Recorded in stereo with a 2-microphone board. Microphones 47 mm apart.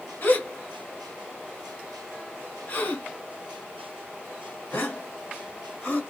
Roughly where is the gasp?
Left.